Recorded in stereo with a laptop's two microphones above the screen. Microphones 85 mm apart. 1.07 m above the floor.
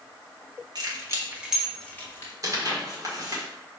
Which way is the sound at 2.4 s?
45° right (ahead or behind).